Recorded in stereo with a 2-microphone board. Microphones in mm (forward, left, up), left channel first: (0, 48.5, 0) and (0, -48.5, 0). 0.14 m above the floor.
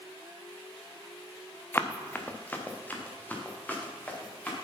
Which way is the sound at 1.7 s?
20° left (ahead or behind).